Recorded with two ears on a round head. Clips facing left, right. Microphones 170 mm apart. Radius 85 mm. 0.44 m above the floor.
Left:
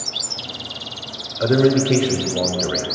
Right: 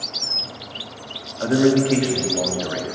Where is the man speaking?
45° left (ahead or behind), 1.8 m.